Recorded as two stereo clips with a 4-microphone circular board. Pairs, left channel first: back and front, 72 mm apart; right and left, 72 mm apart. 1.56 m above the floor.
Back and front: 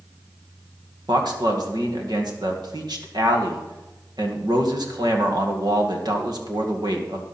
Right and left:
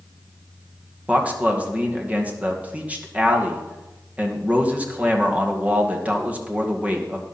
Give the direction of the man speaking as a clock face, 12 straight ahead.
11 o'clock.